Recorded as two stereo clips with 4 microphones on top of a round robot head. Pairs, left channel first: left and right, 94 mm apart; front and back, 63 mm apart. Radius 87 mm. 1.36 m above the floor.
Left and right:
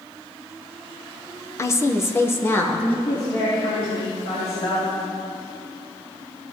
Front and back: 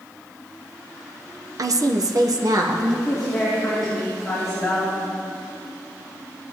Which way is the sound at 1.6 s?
150° left.